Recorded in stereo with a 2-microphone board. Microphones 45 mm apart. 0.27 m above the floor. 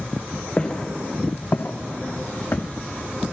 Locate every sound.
0.6 s footsteps: 30° left (ahead or behind), 1.6 m; by 2.6 s 50° left (ahead or behind), 1.0 m